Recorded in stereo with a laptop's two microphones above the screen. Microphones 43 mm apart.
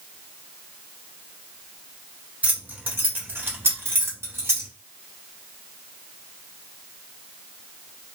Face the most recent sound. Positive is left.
turn(degrees=-80)